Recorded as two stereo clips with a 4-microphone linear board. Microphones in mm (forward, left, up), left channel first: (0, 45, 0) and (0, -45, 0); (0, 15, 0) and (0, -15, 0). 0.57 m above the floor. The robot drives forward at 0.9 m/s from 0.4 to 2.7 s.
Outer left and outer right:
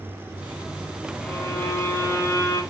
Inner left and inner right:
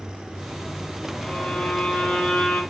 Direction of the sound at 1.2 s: 20° left (ahead or behind).